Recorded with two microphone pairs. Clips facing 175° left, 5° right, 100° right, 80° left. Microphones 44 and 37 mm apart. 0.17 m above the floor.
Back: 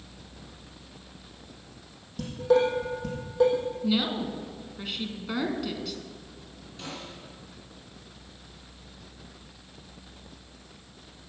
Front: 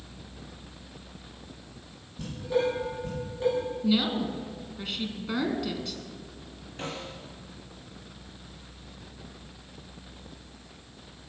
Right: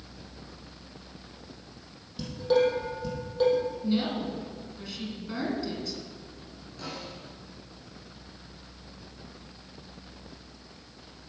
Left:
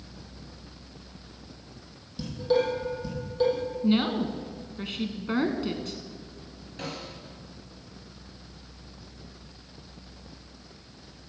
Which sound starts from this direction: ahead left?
A snare drum, at 6.8 s.